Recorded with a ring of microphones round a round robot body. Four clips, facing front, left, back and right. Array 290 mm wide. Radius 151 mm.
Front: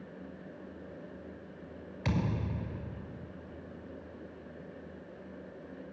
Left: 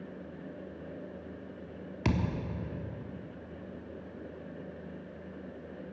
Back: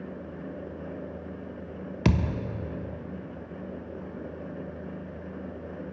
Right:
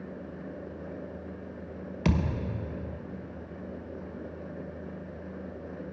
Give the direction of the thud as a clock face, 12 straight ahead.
6 o'clock.